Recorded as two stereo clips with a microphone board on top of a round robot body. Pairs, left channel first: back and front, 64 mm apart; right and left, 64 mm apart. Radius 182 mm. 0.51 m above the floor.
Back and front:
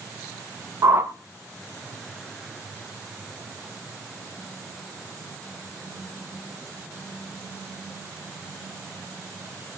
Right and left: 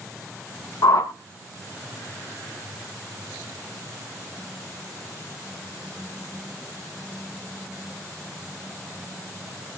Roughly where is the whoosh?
Ahead right.